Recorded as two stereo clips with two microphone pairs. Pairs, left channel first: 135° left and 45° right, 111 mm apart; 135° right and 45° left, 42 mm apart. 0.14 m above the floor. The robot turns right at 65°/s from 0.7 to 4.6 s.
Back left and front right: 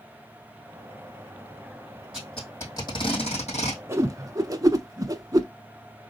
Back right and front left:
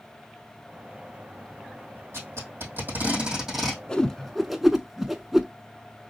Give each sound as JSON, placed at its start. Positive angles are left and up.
{"t": 2.1, "sound": "tape being pulled", "azimuth_deg": 40, "distance_m": 2.5}
{"t": 3.9, "sound": "a whoosh", "azimuth_deg": -85, "distance_m": 0.5}